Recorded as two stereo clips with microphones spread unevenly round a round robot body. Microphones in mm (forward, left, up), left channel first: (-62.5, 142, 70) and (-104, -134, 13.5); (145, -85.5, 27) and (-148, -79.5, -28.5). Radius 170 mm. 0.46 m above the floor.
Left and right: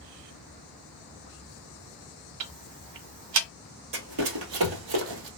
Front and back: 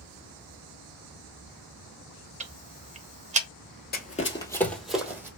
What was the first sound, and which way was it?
Ticking, 115° right.